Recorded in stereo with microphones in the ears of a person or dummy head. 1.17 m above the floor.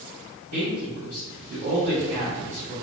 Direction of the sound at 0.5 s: 70° right (ahead or behind).